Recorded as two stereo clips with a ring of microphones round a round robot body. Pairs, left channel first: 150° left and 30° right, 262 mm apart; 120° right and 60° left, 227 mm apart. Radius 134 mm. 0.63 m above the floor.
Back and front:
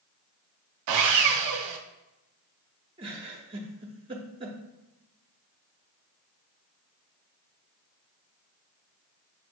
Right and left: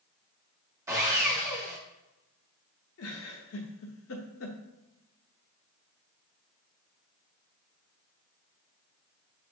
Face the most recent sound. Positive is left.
turn(degrees=-100)